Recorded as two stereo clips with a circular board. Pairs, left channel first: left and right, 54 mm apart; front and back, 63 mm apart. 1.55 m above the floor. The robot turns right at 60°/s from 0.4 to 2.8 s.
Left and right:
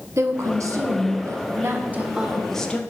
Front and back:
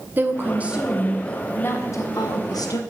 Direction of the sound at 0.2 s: 125° right.